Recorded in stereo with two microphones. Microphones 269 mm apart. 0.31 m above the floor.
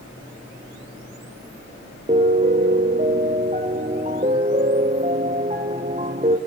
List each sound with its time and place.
2.1 s a piano: 30° right (ahead or behind), 2.0 m